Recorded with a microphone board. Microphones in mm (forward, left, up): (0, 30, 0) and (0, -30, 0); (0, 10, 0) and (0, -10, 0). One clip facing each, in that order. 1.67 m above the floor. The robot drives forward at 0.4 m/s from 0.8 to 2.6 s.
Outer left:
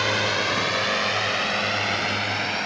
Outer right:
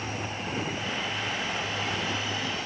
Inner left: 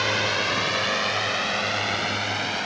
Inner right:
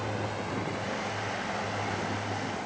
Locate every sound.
0.0 s a drone: 80° left; by 2.7 s 60° left (ahead or behind)